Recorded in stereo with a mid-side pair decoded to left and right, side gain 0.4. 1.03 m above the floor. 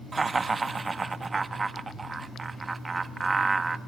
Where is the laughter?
35° right, 1.3 m.